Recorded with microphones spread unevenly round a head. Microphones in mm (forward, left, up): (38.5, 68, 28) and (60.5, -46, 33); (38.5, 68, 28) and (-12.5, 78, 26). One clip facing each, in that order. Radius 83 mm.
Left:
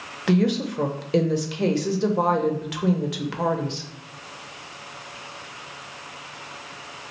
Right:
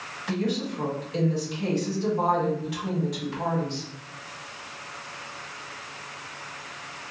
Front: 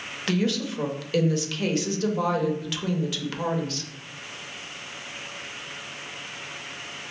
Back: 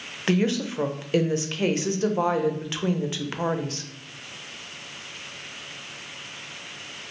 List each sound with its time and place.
0.3 s a woman speaking: 105° left, 0.7 m